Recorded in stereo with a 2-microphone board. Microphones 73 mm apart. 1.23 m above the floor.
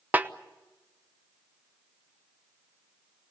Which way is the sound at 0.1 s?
20° right (ahead or behind).